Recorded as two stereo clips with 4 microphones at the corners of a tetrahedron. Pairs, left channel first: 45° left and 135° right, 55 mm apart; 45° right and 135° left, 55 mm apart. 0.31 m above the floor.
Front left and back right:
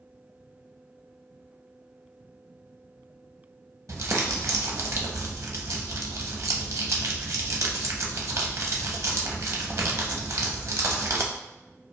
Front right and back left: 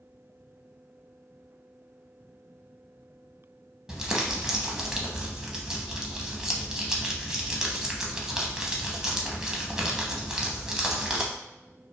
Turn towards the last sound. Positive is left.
turn(degrees=-145)